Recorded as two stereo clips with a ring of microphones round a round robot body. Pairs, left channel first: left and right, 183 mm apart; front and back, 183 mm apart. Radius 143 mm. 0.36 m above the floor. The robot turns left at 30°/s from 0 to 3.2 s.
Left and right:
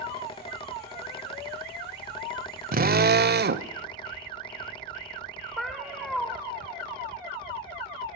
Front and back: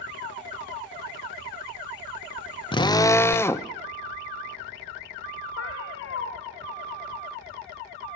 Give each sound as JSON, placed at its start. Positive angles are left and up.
{"t": 2.7, "sound": "a drill", "azimuth_deg": -60, "distance_m": 1.2}
{"t": 5.6, "sound": "a cat meowing", "azimuth_deg": 0, "distance_m": 5.0}